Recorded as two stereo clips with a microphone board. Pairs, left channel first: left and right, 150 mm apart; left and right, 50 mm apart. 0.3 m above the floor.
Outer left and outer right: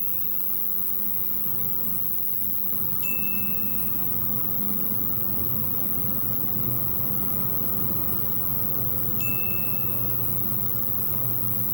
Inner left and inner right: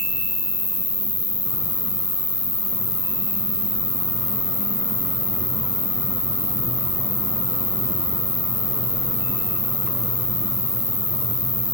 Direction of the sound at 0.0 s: 35° left (ahead or behind).